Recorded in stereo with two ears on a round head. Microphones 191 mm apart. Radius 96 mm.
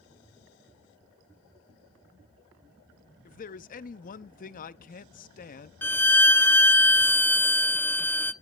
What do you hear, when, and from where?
3.2 s a man speaking: 40° left (ahead or behind), 0.6 m
5.8 s a violin: 10° left (ahead or behind), 0.7 m